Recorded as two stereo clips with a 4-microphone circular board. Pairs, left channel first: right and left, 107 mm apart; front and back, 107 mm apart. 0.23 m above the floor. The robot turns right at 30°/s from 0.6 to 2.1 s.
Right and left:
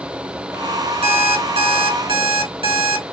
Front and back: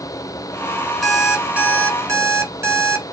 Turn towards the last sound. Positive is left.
turn(degrees=115)